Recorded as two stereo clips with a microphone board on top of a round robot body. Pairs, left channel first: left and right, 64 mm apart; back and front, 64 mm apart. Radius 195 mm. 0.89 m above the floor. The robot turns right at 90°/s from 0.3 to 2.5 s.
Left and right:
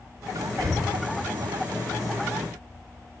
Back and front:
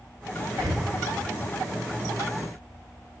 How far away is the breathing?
About 1.2 m.